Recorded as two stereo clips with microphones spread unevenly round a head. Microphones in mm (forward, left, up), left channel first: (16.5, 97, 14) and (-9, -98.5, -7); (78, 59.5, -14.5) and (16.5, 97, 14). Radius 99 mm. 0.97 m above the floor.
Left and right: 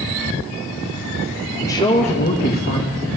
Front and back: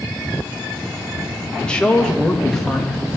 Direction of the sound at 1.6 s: Straight ahead.